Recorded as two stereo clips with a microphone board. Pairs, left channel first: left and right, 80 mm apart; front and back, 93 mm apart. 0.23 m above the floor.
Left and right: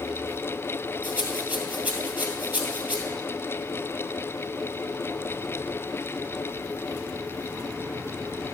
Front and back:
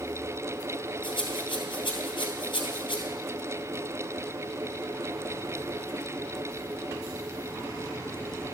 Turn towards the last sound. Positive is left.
turn(degrees=-25)